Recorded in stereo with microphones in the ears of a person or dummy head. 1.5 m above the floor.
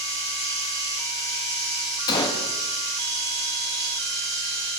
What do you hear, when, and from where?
0.0 s running water: 30° left (ahead or behind), 4.5 m
2.1 s a gunshot: 25° left (ahead or behind), 1.9 m